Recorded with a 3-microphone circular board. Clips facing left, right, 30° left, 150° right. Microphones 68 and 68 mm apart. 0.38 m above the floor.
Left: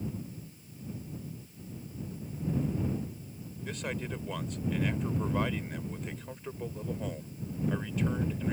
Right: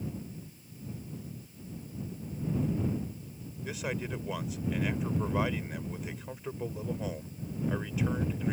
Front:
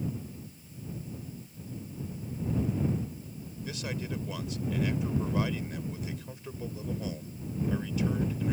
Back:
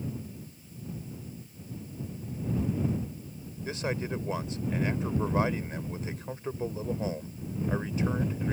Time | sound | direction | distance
3.6 | a man speaking | 170° right | ?